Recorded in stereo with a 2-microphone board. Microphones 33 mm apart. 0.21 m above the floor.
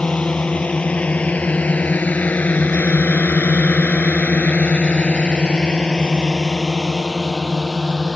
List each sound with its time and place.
0.0 s a drone: 40° left (ahead or behind); by 8.2 s 10° left (ahead or behind)